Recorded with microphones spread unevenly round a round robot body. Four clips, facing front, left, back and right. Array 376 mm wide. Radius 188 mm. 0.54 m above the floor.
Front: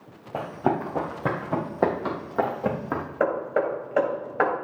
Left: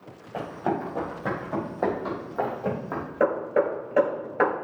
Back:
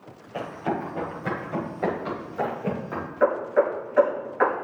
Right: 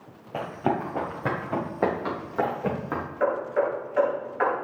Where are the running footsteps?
35° right, 5 m; by 3.0 s 15° right, 5.5 m.